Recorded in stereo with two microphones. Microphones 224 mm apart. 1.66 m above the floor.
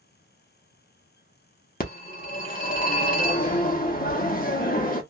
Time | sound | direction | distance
1.8 | a phone ringing | 35° left (ahead or behind) | 0.8 m